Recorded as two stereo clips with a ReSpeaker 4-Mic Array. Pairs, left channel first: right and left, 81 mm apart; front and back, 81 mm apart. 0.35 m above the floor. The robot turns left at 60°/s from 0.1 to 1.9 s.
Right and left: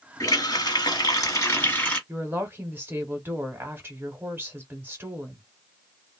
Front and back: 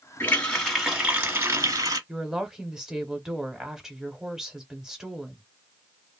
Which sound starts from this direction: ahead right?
A running tap, at 0.2 s.